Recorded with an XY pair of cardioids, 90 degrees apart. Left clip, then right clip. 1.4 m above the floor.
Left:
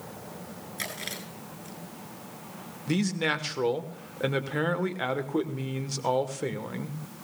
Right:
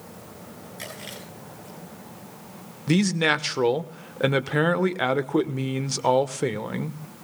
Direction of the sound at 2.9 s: 50° right.